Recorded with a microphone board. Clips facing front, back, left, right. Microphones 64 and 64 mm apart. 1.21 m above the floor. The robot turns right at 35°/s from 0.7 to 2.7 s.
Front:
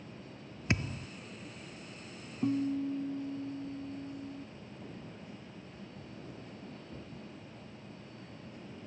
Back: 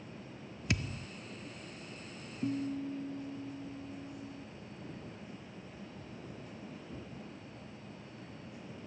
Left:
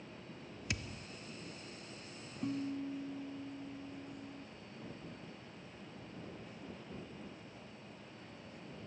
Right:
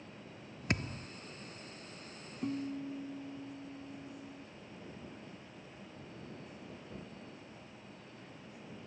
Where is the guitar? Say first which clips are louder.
Front 4 dB, right 1 dB; 10° right; by 4.5 s straight ahead.